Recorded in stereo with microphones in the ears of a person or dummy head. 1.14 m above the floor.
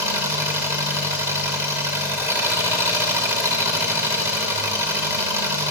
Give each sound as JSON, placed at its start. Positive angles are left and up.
{"t": 0.0, "sound": "an engine running", "side_deg": -5, "distance_m": 2.5}